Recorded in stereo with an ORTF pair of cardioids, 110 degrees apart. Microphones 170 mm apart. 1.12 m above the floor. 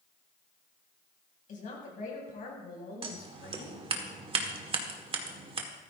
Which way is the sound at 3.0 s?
35° right.